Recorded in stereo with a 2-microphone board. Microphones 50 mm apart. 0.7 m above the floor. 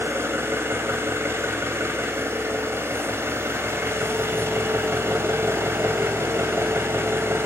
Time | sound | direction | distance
0.0 | an engine running | 60° right (ahead or behind) | 4 m